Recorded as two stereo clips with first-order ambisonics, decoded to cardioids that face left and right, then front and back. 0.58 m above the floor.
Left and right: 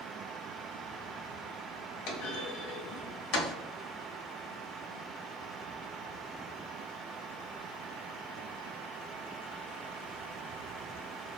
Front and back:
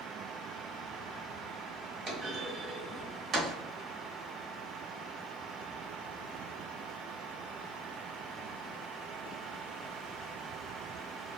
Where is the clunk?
115° left, 0.8 m.